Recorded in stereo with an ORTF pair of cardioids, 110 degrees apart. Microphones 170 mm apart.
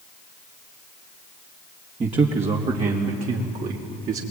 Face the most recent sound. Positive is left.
turn(degrees=-55)